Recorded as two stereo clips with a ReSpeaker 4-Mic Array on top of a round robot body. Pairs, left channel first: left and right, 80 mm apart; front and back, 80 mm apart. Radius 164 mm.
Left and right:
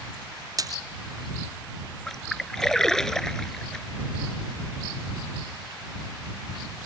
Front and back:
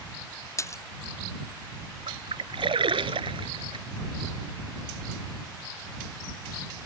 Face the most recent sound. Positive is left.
turn(degrees=175)